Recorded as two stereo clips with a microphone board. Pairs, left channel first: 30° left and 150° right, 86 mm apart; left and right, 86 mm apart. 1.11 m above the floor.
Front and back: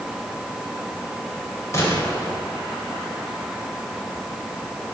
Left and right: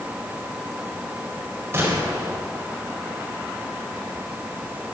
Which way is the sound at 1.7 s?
25° right.